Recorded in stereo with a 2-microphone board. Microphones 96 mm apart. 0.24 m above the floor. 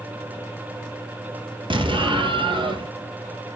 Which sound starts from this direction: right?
An explosion, at 1.7 s.